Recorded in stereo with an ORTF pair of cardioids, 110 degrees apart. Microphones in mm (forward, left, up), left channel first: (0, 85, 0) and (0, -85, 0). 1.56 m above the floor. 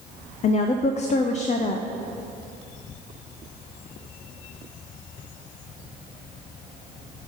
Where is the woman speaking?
40° left, 0.5 m.